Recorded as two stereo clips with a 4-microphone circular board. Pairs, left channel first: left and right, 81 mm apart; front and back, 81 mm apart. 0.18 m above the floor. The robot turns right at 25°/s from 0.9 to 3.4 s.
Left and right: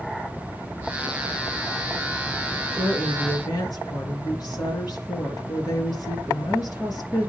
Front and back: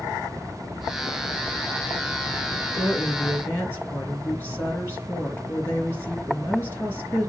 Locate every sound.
2.7 s a woman speaking: 45° left, 3 m; by 7.3 s 60° left, 3 m